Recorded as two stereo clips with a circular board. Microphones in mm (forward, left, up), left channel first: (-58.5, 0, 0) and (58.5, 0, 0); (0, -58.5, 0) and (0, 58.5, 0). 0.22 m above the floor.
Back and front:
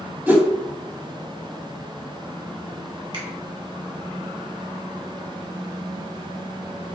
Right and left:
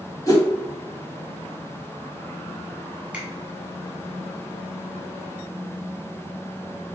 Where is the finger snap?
15° left, 1.3 m.